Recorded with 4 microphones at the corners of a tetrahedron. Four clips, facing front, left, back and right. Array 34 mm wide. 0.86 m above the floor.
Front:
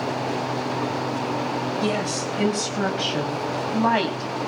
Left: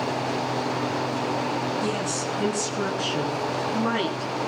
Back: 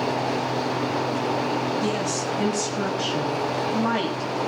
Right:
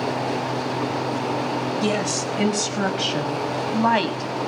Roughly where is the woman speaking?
Ahead right.